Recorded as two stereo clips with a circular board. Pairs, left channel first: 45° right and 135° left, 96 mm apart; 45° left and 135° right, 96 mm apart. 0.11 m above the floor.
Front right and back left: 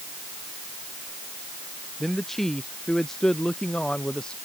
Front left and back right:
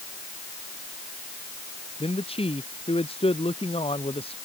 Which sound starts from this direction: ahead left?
A man speaking, at 2.0 s.